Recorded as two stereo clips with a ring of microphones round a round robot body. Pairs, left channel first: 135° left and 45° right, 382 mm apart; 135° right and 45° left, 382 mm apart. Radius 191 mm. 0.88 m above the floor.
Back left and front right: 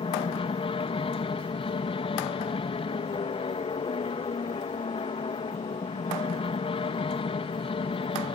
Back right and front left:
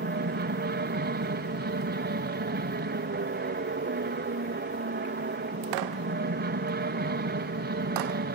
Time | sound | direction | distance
0.0 | an aircraft | 75° left | ?